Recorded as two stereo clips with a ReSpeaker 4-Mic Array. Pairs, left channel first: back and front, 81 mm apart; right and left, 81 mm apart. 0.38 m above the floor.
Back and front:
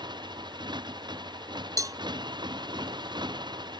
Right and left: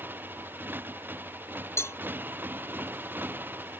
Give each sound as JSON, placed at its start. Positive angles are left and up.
{"t": 0.0, "sound": "a motorcycle", "azimuth_deg": 25}
{"t": 1.8, "sound": "a cowbell", "azimuth_deg": -40}